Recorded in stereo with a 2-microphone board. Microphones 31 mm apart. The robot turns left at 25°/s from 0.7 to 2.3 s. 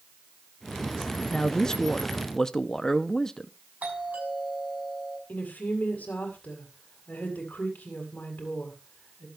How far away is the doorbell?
About 7 m.